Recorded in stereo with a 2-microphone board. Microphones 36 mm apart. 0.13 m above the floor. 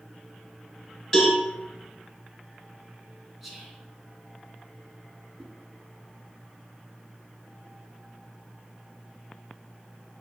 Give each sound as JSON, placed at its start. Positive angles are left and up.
{"t": 1.1, "sound": "a cowbell", "side_deg": 10, "distance_m": 1.5}
{"t": 3.4, "sound": "whispering", "side_deg": -5, "distance_m": 1.3}
{"t": 5.4, "sound": "a whoosh", "side_deg": -10, "distance_m": 1.5}